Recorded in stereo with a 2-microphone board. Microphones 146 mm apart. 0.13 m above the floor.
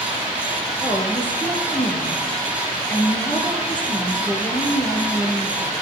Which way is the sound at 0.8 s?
10° left (ahead or behind).